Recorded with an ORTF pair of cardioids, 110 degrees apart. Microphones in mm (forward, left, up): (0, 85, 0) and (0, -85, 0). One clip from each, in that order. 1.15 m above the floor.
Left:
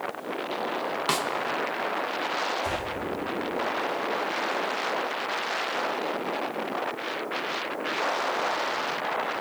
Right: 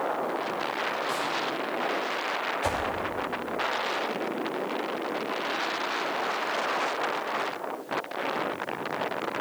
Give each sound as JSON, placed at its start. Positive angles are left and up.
{"t": 1.1, "sound": "a snare drum", "azimuth_deg": 65, "distance_m": 0.9}
{"t": 2.6, "sound": "a whoosh", "azimuth_deg": -45, "distance_m": 2.5}